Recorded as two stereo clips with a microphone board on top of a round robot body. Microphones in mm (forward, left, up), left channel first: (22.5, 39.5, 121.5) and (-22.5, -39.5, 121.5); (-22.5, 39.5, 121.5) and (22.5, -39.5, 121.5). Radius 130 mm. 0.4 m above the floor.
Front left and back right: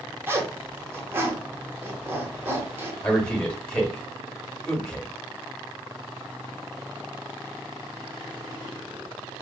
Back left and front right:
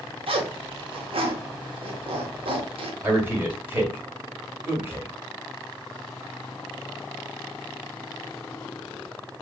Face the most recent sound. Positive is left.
turn(degrees=-15)